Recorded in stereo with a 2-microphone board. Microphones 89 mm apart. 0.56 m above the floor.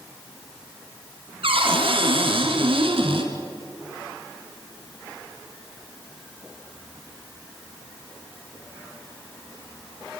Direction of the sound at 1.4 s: 80° right.